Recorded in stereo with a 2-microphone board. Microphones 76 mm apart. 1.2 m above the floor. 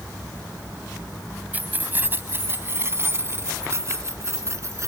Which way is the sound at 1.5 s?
25° right (ahead or behind).